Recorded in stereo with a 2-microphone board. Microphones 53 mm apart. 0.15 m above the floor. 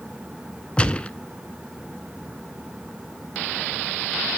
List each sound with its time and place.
0.8 s a gunshot: 20° left (ahead or behind), 0.6 m